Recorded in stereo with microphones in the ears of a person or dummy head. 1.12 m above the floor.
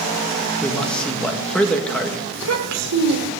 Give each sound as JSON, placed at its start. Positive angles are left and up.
{"t": 0.6, "sound": "a man speaking", "side_deg": 5, "distance_m": 1.6}
{"t": 2.3, "sound": "a child speaking", "side_deg": -85, "distance_m": 2.5}